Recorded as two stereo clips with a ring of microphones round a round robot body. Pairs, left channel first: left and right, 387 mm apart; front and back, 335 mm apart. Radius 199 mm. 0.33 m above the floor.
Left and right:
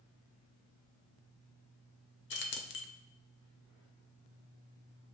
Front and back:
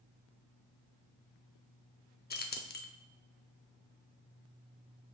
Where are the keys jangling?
45° left, 0.6 m.